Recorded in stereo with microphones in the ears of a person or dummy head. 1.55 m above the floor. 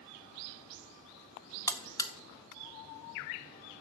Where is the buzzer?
20° left (ahead or behind), 0.5 m.